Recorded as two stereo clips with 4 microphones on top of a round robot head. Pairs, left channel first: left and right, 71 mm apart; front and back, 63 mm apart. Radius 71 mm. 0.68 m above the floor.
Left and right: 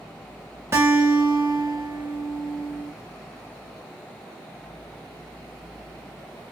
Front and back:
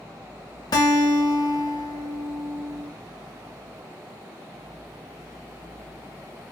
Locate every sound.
0.7 s a guitar: 25° right, 1.4 m